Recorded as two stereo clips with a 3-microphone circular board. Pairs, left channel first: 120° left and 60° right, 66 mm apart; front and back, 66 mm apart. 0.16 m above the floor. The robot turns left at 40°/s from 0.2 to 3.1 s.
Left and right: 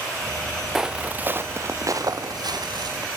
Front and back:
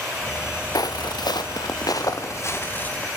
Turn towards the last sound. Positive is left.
turn(degrees=-75)